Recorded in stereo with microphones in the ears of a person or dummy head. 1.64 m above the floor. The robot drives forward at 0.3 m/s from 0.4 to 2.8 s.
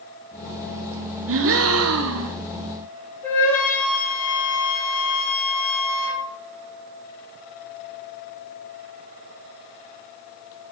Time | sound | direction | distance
1.3 | a gasp | 70° right (ahead or behind) | 0.8 m
3.2 | a flute | 15° left (ahead or behind) | 2.5 m